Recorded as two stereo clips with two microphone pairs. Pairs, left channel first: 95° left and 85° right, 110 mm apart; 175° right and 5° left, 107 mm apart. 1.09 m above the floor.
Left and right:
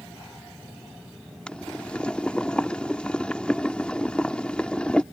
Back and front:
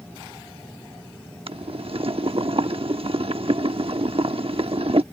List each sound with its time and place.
1.5 s boiling: 10° left